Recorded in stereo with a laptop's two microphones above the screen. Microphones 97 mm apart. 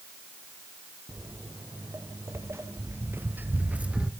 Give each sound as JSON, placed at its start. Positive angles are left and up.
{"t": 1.1, "sound": "footsteps", "side_deg": -30, "distance_m": 2.0}